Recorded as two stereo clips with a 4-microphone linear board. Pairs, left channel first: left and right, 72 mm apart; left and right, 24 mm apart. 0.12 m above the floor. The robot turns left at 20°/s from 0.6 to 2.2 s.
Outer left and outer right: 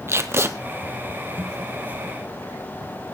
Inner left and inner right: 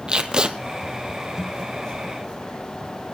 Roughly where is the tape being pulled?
Right.